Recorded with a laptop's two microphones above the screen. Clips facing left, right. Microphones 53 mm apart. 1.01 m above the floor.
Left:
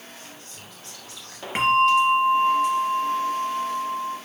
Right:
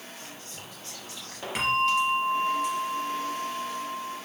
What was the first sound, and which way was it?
Whispering, 25° right (ahead or behind).